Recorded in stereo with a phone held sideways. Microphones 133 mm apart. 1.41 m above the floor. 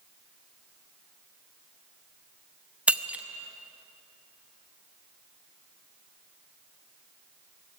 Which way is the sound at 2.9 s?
10° right (ahead or behind).